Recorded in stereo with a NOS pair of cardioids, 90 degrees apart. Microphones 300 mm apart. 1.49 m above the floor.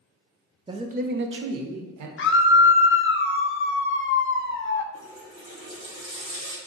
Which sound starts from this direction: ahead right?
A running tap, at 4.9 s.